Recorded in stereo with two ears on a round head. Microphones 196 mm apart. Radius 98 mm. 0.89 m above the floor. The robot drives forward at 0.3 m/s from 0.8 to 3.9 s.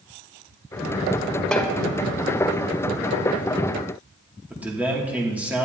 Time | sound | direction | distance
1.5 | a snare drum | 5° left (ahead or behind) | 1.4 m
4.5 | a man speaking | 10° right (ahead or behind) | 2.5 m